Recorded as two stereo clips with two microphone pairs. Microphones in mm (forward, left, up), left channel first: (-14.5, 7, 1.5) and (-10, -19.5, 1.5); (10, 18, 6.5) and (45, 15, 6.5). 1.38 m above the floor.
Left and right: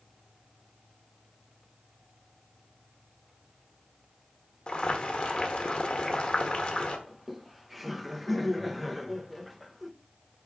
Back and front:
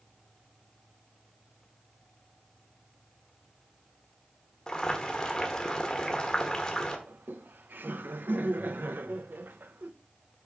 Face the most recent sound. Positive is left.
turn(degrees=10)